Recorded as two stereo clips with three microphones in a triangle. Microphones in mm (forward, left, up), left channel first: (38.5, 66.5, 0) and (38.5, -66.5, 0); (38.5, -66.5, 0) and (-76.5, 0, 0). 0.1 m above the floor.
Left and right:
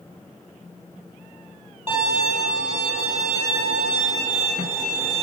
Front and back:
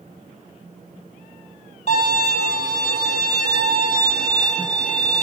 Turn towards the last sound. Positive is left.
turn(degrees=-15)